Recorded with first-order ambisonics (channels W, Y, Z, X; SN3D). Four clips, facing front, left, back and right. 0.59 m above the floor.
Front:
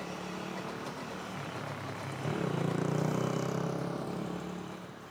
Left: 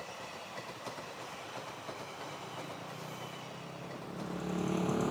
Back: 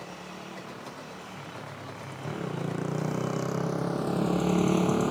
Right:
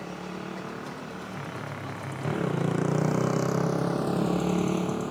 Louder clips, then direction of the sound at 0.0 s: Right 8 dB, front 2 dB; 80° right.